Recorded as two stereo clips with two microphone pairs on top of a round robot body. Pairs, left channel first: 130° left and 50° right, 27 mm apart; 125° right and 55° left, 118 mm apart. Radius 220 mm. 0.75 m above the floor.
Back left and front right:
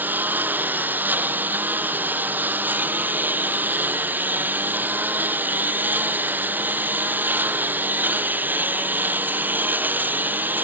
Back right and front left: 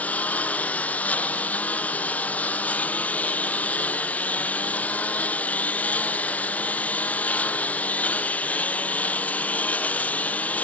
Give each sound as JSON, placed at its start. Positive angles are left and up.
{"t": 0.0, "sound": "a lawn mower", "azimuth_deg": -50}